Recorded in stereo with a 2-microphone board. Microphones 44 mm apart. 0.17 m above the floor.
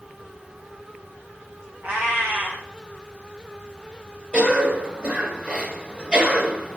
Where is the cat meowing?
40° right (ahead or behind), 4.5 m.